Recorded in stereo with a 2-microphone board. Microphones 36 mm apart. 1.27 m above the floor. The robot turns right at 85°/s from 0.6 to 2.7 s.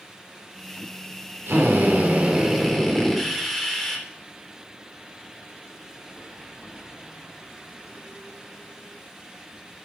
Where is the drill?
95° right, 4 m; by 4.0 s 10° left, 4 m.